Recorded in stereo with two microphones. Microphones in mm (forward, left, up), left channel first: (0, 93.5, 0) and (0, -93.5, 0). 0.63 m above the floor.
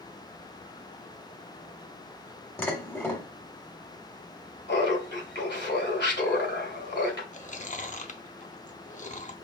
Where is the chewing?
40° left (ahead or behind), 0.6 m.